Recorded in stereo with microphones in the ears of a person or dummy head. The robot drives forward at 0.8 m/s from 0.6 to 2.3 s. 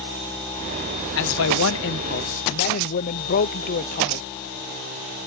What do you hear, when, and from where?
1.2 s a man speaking: 70° left (ahead or behind); by 4.2 s 50° left (ahead or behind)